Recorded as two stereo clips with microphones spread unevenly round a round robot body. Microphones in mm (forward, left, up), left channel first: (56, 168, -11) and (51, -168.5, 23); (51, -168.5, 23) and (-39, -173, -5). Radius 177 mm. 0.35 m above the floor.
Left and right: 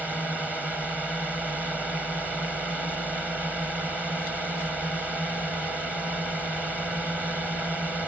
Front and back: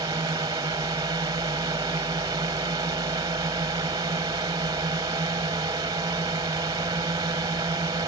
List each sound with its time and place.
0.0 s a drone: straight behind